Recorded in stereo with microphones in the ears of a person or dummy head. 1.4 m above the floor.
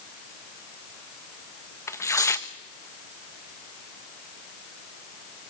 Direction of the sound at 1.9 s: 15° left (ahead or behind).